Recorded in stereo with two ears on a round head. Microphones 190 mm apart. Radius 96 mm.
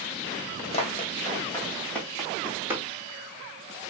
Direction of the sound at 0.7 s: 30° left (ahead or behind).